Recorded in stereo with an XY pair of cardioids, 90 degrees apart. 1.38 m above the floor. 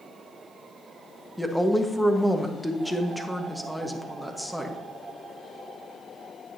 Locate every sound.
1.4 s a woman speaking: straight ahead, 1.4 m